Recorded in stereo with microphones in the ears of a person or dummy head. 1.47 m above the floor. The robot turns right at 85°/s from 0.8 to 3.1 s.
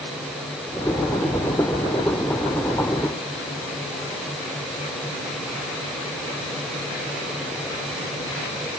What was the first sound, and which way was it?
Only background noise.